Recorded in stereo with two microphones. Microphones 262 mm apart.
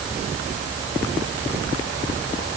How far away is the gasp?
No gasp in this recording.